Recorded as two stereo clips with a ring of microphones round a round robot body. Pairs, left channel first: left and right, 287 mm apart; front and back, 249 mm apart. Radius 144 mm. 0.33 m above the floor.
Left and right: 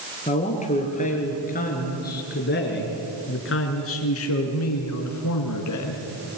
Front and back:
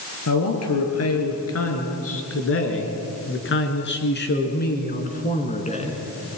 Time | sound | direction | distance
0.3 | a man speaking | 20° left | 5.5 m